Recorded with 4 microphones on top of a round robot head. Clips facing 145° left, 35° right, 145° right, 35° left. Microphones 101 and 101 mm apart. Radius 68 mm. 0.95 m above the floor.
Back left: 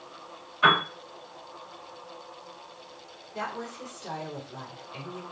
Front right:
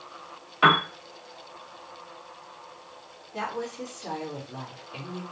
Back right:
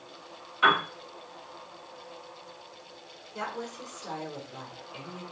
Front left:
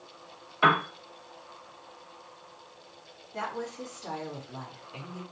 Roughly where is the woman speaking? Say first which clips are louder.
Front right 3 dB, front left 1 dB; ahead.